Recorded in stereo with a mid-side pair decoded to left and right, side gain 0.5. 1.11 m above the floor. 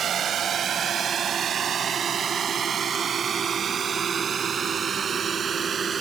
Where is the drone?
50° right; by 6.0 s 35° right.